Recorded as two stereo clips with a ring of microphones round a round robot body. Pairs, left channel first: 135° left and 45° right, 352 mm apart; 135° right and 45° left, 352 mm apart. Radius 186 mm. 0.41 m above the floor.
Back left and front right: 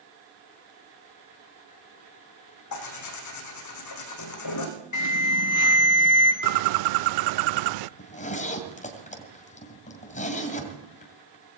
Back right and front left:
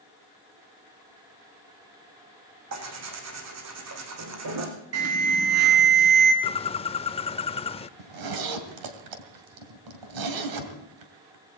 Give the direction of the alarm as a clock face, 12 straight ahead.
9 o'clock.